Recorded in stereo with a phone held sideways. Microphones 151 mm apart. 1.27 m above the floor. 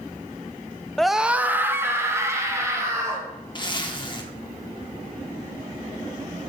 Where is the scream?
5° left (ahead or behind), 0.5 m; by 3.3 s 20° right (ahead or behind), 3 m.